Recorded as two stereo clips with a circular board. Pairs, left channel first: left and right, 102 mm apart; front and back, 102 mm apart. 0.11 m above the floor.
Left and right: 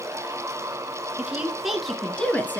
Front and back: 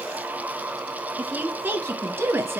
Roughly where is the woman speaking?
Behind right.